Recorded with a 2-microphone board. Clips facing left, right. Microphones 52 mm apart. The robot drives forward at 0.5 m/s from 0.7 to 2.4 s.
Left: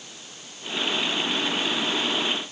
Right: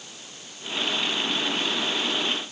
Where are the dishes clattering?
I don't hear dishes clattering.